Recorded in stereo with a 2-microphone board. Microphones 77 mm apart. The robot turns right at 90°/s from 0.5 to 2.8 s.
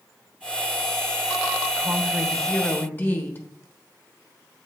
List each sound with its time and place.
1.8 s a woman speaking: 50° right, 1.1 m; by 3.4 s 45° left, 1.1 m